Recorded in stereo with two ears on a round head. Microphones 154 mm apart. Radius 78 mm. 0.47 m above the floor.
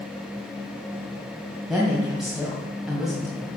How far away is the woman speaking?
About 2.5 m.